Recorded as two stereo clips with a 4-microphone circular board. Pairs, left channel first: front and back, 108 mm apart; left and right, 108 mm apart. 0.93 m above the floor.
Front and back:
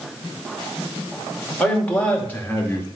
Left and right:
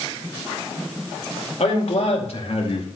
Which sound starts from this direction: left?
A man speaking, at 1.6 s.